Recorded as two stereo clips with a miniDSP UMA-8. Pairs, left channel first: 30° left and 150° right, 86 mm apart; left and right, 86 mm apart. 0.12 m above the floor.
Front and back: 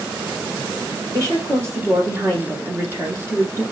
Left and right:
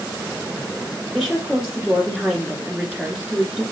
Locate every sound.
1.1 s a woman speaking: 170° right, 1.6 m